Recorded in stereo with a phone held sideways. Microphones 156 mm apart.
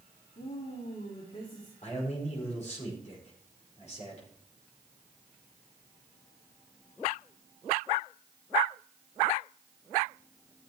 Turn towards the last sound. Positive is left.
turn(degrees=50)  # may be behind; listen again after turning